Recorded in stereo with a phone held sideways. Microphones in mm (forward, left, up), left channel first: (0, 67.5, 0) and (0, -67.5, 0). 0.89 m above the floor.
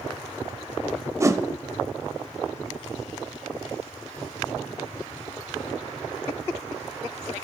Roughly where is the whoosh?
Right.